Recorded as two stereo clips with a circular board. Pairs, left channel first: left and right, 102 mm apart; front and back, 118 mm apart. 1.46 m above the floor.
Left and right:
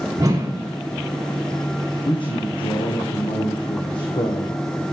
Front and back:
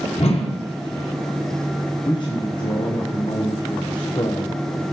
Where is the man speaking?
50° left, 0.9 m.